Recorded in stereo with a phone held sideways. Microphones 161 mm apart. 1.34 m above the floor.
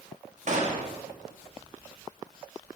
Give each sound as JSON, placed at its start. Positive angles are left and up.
{"t": 0.5, "sound": "a gunshot", "side_deg": -50, "distance_m": 1.2}